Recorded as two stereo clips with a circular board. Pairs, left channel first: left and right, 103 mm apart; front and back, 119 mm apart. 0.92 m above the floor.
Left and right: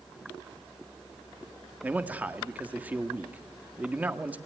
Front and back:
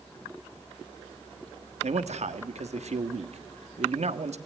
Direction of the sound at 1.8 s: 165° right.